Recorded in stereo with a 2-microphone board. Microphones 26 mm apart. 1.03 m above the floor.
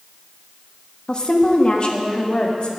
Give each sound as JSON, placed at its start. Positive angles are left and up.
{"t": 1.1, "sound": "a woman speaking", "side_deg": 35, "distance_m": 1.4}